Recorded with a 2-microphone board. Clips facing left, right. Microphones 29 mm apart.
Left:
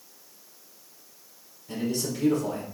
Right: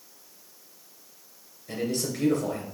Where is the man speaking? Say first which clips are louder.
Even; 50° right (ahead or behind), 2.5 m.